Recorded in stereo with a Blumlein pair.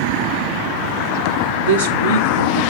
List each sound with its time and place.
1.6 s a woman speaking: 70° right, 1.1 m